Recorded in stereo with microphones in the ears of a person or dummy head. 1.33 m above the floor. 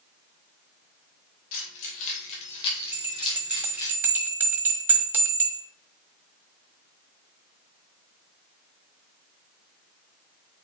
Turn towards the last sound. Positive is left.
turn(degrees=-5)  # may be behind; listen again after turning